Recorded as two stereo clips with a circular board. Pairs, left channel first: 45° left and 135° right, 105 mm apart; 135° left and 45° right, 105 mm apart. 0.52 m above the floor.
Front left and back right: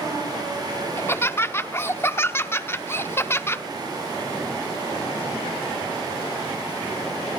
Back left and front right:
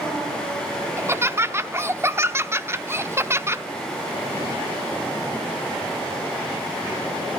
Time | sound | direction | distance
1.0 | laughter | 5° right | 0.8 m